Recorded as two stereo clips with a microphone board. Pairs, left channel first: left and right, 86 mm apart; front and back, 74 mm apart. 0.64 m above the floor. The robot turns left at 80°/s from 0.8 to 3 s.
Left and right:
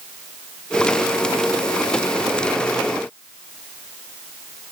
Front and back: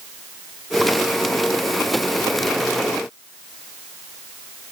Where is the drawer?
No drawer in this recording.